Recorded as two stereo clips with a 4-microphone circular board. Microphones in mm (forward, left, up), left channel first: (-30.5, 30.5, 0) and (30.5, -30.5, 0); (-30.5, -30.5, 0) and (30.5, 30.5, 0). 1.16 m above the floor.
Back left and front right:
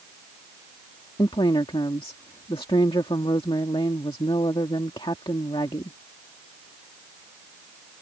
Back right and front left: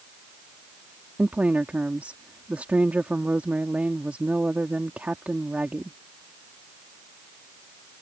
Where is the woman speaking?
120° left.